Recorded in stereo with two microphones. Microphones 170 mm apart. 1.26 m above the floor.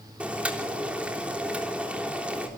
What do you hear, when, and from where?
0.2 s boiling: 5° right (ahead or behind), 3.5 m